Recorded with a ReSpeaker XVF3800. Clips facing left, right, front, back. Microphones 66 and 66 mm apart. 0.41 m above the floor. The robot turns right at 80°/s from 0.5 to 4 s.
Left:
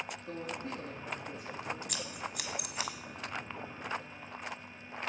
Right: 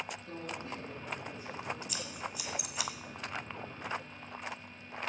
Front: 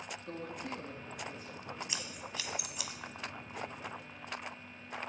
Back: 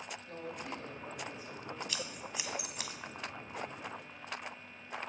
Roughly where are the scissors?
Ahead left.